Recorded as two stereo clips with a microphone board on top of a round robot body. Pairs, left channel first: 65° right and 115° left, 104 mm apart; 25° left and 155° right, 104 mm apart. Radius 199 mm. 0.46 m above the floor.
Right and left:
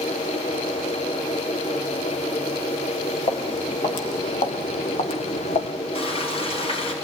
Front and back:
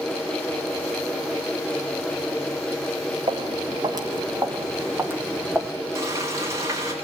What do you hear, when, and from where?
3.3 s footsteps: 110° right, 3.5 m; by 5.7 s 65° right, 1.9 m
6.0 s frying: 95° right, 7.5 m